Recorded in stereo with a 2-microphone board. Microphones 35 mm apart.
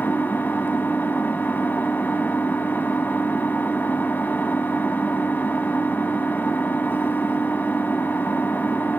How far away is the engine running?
About 1.0 m.